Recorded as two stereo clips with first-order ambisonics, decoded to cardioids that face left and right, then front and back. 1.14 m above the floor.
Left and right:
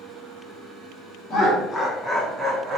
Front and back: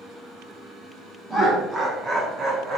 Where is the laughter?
100° left, 0.7 m; by 2.8 s 135° right, 0.8 m.